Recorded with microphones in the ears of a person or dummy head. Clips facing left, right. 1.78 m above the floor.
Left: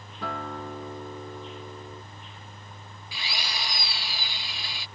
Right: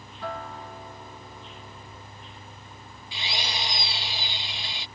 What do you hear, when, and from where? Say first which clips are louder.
0.2 s a guitar: left 2 dB; 70° left (ahead or behind)
3.1 s a drill: right 3 dB; 25° right (ahead or behind)